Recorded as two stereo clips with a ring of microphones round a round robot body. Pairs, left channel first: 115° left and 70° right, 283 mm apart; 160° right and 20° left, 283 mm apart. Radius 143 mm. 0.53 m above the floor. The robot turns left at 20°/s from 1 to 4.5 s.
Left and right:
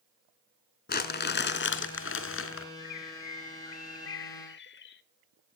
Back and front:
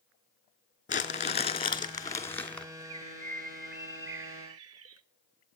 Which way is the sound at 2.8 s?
95° left.